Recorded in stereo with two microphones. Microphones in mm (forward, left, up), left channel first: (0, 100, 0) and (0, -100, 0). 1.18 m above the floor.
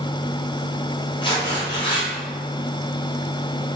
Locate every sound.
1.2 s tearing paper: 25° left (ahead or behind), 1.0 m